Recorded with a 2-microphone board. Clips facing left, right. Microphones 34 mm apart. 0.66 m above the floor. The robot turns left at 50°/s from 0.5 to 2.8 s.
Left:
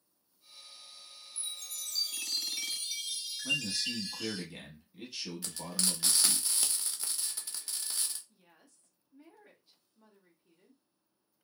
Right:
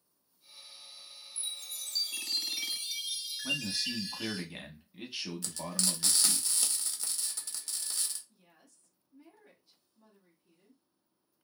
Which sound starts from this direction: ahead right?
A chime, at 1.4 s.